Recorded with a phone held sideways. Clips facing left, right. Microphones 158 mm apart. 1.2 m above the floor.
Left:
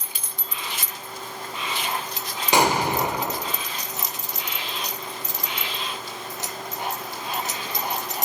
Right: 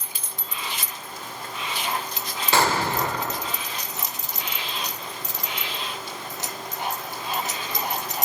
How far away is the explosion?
About 2.5 m.